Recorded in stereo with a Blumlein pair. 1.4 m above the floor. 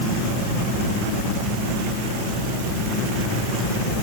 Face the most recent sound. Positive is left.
No sound to turn to.